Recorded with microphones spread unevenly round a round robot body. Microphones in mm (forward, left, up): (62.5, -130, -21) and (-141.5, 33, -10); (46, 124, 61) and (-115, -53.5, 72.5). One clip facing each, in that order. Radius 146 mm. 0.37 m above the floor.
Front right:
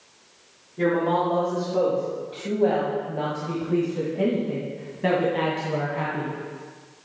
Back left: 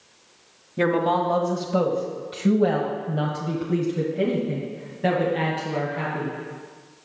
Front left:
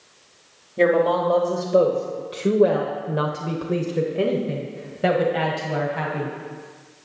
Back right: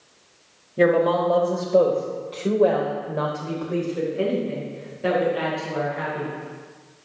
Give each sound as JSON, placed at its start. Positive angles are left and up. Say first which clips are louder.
{"t": 0.8, "sound": "a woman speaking", "louder": "even, even", "azimuth_deg": 150, "distance_m": 1.8}